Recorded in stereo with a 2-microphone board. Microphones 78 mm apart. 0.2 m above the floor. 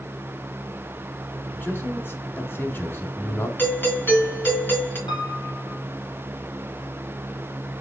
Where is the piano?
75° left (ahead or behind), 3 m.